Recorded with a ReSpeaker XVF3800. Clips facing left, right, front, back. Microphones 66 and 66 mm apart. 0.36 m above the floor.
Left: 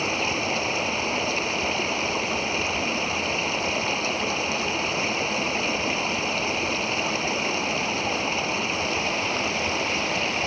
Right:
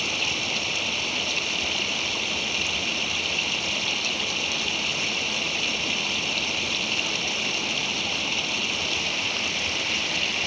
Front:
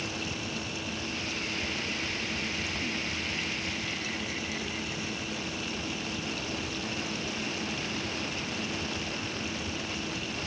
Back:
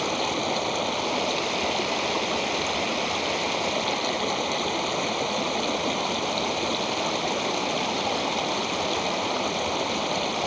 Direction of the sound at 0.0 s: 155° left.